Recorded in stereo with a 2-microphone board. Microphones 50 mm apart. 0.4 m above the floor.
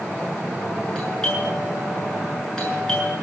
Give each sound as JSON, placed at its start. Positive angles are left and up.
{"t": 0.9, "sound": "a doorbell", "side_deg": 15, "distance_m": 7.5}